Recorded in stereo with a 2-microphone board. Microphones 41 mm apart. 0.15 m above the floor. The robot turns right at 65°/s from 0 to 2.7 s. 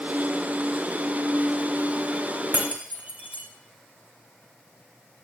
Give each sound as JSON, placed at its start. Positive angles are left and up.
{"t": 2.5, "sound": "breaking glass", "side_deg": -50, "distance_m": 3.0}